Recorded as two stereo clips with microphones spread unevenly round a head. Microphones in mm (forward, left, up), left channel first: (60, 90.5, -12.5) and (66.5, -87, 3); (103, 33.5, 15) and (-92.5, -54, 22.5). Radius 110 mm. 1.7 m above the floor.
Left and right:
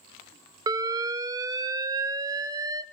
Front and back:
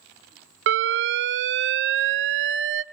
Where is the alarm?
160° right, 0.6 m.